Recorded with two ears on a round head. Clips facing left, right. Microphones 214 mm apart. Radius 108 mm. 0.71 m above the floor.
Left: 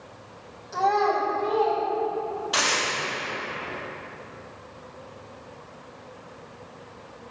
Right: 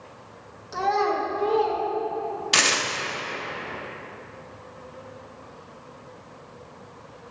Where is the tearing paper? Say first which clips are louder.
Right 1 dB; 35° right (ahead or behind), 0.6 m.